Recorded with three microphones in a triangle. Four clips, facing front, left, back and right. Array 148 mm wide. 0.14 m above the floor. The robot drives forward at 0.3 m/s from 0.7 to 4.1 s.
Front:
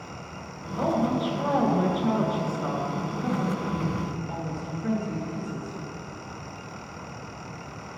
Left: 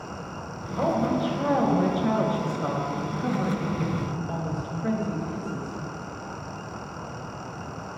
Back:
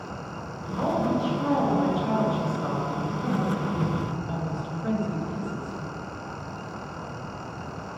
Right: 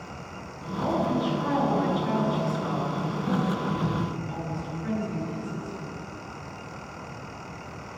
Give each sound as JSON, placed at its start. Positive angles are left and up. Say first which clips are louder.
{"t": 0.8, "sound": "a woman speaking", "louder": "left 2 dB, even", "azimuth_deg": 75, "distance_m": 2.5}